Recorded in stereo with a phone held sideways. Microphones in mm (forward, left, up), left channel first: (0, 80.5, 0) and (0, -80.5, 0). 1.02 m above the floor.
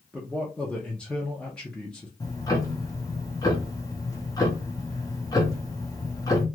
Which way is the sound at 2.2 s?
20° left (ahead or behind).